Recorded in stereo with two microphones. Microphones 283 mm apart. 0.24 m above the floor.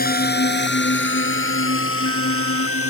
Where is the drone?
30° left (ahead or behind); by 2.9 s 50° left (ahead or behind).